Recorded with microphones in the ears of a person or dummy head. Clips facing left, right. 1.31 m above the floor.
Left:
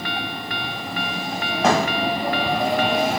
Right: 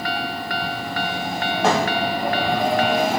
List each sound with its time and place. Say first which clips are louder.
1.6 s a thud: left 1 dB; 5° right (ahead or behind), 2.5 m